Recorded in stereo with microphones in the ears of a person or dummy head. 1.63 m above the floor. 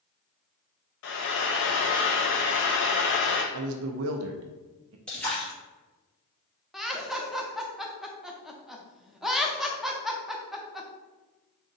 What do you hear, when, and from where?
1.0 s frying: 70° left (ahead or behind), 0.7 m
3.5 s a man speaking: 70° right (ahead or behind), 0.5 m
5.1 s a splash: centre (ahead or behind), 1.3 m
6.7 s laughter: 5° left (ahead or behind), 0.6 m